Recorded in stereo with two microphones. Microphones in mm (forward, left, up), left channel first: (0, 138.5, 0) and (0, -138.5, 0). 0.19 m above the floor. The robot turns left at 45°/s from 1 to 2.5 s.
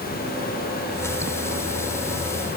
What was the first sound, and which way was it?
Only background noise.